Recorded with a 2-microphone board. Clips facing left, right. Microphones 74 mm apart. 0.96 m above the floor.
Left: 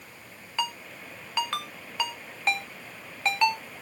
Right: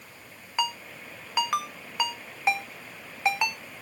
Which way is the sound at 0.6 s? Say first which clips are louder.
Right 2 dB; 10° right (ahead or behind).